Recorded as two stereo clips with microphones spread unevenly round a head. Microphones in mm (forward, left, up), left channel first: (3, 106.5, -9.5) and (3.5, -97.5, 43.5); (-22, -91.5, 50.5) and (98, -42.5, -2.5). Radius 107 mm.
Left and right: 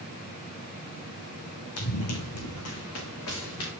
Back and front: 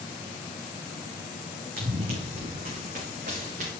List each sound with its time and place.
1.8 s running footsteps: 70° left, 3.5 m